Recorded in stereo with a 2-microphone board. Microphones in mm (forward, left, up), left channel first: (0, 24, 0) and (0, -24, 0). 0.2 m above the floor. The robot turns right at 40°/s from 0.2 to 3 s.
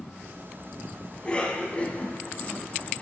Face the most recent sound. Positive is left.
turn(degrees=30)  # may be behind; listen again after turning